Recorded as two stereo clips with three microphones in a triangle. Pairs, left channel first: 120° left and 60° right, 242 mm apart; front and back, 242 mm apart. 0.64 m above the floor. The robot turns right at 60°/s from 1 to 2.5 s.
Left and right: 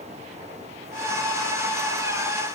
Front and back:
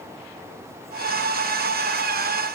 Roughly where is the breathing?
No breathing in this recording.